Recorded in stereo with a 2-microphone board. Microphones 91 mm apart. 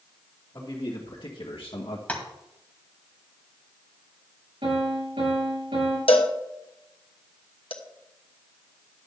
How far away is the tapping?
About 1.8 m.